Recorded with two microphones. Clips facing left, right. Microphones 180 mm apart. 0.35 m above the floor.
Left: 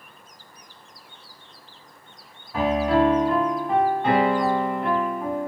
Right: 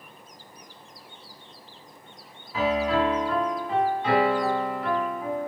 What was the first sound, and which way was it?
A piano, 60° left (ahead or behind).